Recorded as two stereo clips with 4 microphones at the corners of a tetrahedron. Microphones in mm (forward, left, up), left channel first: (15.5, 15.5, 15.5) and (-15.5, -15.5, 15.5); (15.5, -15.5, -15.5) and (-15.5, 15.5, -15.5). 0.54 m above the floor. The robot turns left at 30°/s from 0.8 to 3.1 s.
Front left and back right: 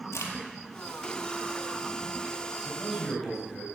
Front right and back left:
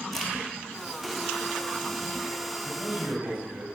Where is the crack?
35° left, 2.5 m.